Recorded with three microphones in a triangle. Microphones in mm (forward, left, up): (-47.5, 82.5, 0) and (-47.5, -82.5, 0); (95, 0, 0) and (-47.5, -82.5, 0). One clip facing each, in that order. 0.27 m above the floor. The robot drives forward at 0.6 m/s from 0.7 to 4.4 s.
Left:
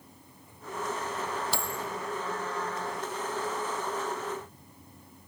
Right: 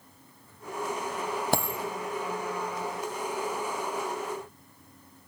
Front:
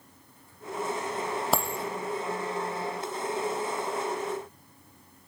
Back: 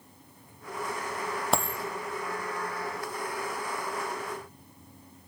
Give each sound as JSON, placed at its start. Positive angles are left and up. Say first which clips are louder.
{"t": 1.5, "sound": "a dropped coin", "louder": "right 6 dB, back 1 dB", "azimuth_deg": -55, "distance_m": 1.2}